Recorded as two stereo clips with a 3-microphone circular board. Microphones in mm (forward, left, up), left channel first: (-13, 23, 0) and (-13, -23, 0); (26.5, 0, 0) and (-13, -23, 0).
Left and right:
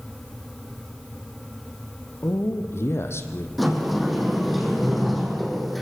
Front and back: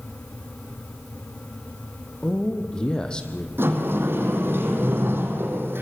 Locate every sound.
2.2 s a man speaking: 100° left, 3.5 m
3.6 s a sliding door: straight behind, 5.5 m